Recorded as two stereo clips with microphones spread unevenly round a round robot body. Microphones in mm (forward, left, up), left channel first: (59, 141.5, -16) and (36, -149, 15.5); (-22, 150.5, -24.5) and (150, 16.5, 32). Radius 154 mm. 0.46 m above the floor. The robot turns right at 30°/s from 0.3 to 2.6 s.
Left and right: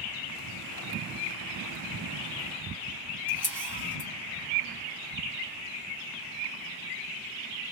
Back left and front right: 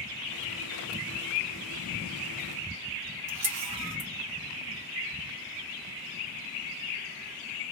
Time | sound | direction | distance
3.3 | a camera shutter | 10° right | 1.1 m